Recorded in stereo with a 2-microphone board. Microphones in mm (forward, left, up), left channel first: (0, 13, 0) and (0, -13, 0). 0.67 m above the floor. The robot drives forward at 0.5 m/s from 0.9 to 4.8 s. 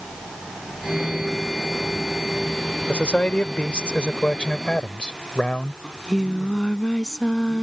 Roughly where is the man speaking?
Left.